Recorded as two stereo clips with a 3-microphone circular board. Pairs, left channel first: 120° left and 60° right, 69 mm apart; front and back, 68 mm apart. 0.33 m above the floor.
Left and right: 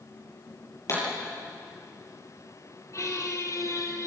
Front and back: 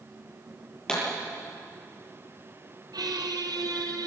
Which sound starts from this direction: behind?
A squeak, at 2.9 s.